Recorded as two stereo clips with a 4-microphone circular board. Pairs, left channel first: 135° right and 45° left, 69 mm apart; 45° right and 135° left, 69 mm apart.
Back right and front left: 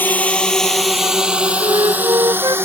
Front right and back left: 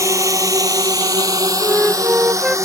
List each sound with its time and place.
0.0 s a drone: 165° left; by 2.6 s 100° left
1.6 s a flute: 55° left